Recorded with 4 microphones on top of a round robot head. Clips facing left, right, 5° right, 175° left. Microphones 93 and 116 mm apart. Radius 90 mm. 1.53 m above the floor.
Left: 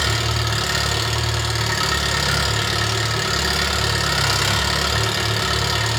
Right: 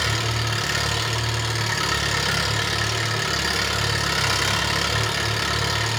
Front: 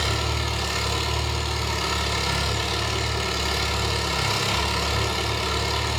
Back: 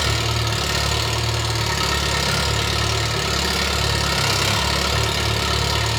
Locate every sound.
0.0 s an engine running: 170° left, 1.4 m